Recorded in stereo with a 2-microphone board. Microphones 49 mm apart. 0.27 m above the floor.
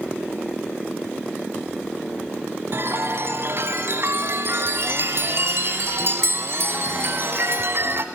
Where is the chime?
55° right (ahead or behind), 0.9 m.